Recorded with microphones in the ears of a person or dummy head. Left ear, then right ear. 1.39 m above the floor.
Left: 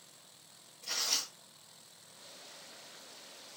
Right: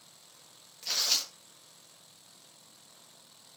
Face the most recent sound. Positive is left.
turn(degrees=-40)  # may be behind; listen again after turning